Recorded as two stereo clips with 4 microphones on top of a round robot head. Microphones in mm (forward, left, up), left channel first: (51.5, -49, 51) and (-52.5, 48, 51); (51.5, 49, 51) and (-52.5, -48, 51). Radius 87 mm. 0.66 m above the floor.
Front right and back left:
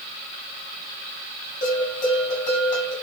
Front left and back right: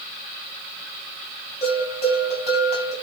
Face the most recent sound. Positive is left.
turn(degrees=-5)